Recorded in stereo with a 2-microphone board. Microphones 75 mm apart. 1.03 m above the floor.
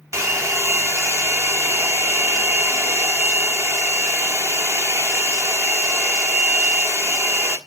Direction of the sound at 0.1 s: 40° right (ahead or behind).